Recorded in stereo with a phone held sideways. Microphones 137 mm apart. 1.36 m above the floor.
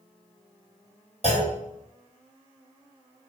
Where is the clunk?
45° left (ahead or behind), 1.6 m.